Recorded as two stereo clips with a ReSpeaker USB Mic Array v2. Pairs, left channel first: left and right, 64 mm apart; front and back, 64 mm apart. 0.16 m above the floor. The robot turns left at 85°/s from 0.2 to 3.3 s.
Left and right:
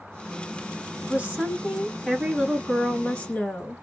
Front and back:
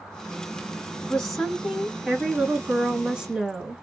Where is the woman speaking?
60° right, 1.7 m; by 3.8 s 110° left, 1.7 m.